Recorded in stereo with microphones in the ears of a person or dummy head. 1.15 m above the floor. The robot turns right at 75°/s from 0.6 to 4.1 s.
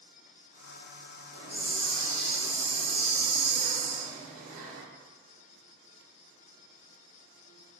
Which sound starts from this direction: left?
A hiss, at 1.3 s.